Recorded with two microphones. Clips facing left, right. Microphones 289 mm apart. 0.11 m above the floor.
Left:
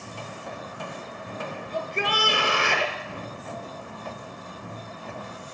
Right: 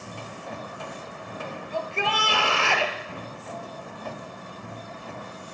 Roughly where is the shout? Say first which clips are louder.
Even; centre.